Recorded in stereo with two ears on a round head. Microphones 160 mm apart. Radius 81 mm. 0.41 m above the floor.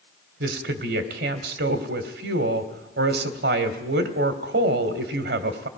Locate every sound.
0.4 s a woman speaking: 60° right (ahead or behind), 1.7 m